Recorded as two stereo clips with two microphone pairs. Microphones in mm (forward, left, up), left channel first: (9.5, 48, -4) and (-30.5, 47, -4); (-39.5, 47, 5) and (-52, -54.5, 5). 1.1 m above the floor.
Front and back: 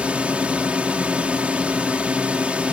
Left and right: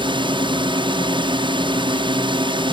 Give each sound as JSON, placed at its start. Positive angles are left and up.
{"t": 0.0, "sound": "a drone", "azimuth_deg": -120}